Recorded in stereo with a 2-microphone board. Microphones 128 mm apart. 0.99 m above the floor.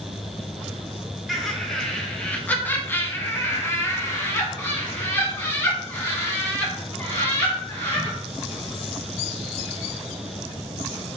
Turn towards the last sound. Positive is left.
turn(degrees=20)  # may be behind; listen again after turning